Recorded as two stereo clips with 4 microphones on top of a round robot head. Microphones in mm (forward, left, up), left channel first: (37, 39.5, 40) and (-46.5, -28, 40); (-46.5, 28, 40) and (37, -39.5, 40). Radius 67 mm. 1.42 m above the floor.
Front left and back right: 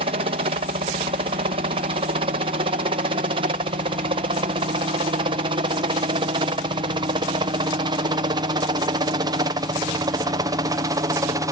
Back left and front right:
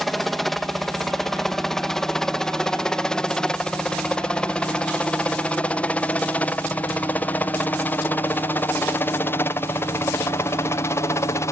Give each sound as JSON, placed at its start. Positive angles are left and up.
{"t": 0.0, "sound": "a helicopter", "azimuth_deg": -130}